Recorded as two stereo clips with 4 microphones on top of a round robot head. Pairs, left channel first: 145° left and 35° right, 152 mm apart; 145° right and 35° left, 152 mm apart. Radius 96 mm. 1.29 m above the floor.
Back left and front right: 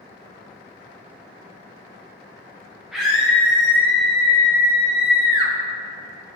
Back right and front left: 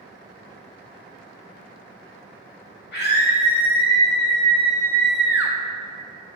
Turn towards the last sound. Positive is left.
turn(degrees=110)